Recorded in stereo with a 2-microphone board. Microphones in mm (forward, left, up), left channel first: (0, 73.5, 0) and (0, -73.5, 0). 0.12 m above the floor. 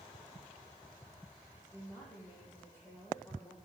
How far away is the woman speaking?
About 6 m.